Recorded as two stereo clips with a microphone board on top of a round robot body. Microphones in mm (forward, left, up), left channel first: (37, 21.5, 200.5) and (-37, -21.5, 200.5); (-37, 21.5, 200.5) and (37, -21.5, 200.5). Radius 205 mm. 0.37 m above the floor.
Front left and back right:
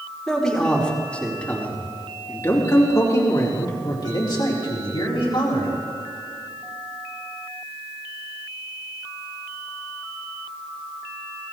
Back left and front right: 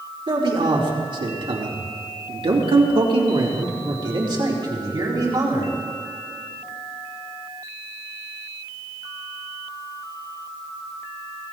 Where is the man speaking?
55° right, 4.5 m; by 5.7 s 20° left, 4 m.